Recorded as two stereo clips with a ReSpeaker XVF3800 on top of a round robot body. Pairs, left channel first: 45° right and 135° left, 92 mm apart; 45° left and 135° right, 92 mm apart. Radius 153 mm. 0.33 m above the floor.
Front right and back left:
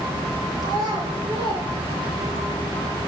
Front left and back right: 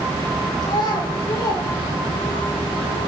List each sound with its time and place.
0.6 s a child speaking: 90° left, 6 m; by 2.4 s 95° left, 6.5 m